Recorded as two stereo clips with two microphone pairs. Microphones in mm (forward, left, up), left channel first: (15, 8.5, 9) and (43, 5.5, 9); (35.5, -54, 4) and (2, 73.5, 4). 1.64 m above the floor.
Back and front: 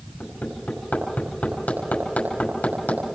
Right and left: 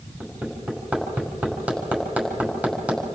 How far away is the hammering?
About 6 m.